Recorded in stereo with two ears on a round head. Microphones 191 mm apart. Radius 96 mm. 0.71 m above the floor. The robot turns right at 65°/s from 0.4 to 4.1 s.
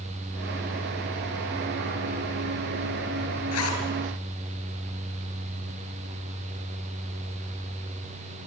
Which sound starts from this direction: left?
A zipper, at 3.5 s.